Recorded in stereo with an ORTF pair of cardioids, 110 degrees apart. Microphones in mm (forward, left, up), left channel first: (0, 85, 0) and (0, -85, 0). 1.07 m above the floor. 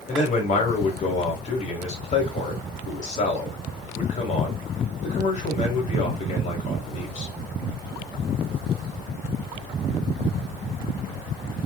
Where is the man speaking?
45° left, 2.5 m.